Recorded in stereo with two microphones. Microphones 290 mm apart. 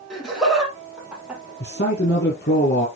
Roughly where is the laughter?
Centre.